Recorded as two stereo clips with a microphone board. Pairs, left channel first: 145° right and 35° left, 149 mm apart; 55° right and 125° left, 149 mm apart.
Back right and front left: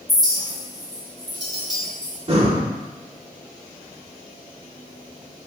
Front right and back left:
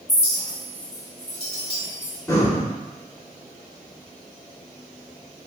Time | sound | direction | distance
0.1 | a clink | 20° right | 1.3 m
2.3 | breathing | 5° left | 0.7 m